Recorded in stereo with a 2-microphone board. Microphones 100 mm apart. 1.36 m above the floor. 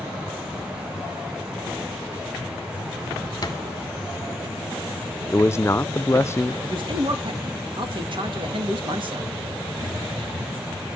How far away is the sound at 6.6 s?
About 2.5 m.